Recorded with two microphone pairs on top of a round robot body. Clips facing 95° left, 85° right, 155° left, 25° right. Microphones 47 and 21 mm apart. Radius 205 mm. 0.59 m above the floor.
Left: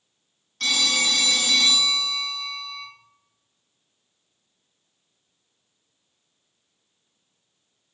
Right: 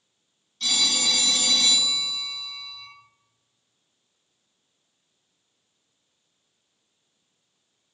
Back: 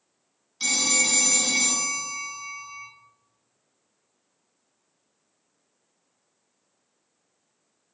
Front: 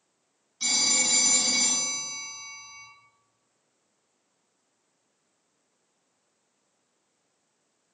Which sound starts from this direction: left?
A phone ringing, at 0.6 s.